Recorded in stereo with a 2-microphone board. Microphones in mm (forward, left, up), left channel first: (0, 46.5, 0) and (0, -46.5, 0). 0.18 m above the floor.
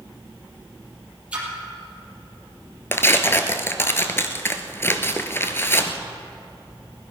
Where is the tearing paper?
25° left (ahead or behind), 1.0 m.